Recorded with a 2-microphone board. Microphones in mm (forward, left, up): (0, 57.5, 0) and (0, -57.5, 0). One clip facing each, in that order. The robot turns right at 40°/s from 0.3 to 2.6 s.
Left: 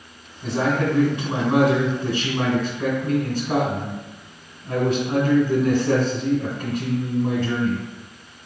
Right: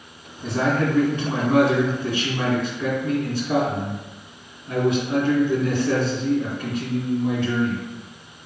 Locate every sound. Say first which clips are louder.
0.4 s a man speaking: even; 10° left, 1.9 m; by 7.8 s 100° left, 1.9 m